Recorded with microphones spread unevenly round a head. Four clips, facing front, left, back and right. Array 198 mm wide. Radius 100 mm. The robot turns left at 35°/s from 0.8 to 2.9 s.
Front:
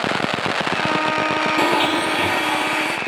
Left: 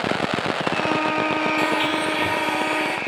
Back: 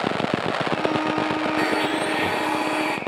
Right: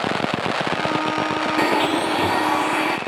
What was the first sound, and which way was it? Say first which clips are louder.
A blender: right 3 dB, front 4 dB; 50° right.